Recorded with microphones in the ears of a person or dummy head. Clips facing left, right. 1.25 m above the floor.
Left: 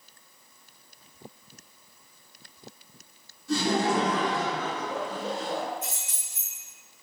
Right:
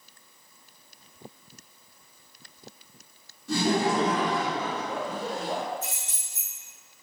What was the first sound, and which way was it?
Laughter, 65° right (ahead or behind).